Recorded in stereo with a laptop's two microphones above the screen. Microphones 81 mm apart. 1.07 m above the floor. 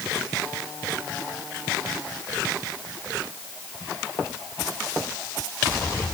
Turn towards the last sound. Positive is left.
No sound to turn to.